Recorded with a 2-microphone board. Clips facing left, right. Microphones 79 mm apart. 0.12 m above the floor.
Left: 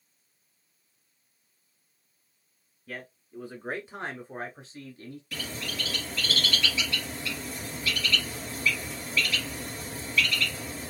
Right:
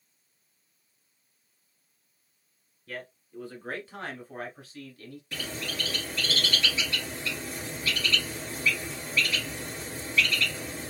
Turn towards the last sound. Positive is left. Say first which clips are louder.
# right 1 dB
turn(degrees=-30)  # may be behind; listen again after turning